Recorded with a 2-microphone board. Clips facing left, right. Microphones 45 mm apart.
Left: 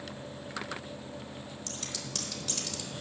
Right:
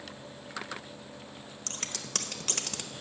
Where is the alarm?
I don't hear an alarm.